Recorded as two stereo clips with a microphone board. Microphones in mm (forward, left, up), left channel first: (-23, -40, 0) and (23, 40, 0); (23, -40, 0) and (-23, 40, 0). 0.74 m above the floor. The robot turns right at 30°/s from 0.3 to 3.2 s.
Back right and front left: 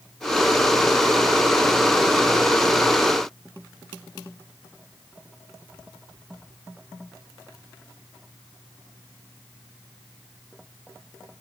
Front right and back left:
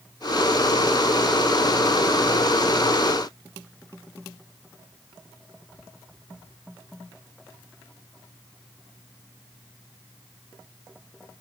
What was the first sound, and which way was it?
Only background noise.